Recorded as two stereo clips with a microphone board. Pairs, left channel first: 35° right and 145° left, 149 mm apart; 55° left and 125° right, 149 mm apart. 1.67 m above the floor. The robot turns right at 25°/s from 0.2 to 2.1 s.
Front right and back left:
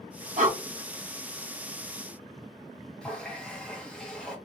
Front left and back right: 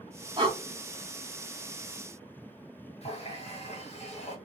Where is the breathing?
Straight behind, 0.5 m; by 0.6 s 175° right, 0.5 m.